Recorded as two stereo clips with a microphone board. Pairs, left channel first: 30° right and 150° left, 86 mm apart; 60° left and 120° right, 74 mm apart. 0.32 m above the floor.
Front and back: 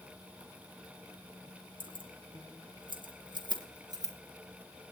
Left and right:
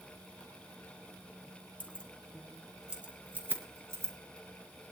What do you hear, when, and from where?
1.8 s keys jangling: 130° left, 3.5 m; by 4.1 s 170° right, 4.5 m